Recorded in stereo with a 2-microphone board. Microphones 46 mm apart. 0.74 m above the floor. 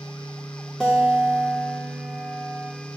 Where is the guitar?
15° left (ahead or behind), 2 m.